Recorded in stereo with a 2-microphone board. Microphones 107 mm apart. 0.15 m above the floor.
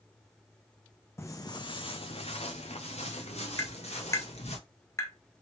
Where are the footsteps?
25° left (ahead or behind), 0.6 m; by 4.6 s 80° left, 1.9 m.